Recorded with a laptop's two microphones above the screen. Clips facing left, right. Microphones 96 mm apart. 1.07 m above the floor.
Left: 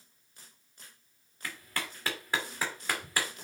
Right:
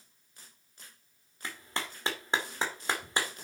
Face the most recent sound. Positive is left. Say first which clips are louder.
# right 1 dB
turn(degrees=-25)  # may be behind; listen again after turning